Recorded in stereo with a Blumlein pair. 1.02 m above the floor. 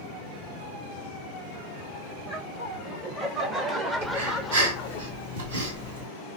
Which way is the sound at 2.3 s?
35° right.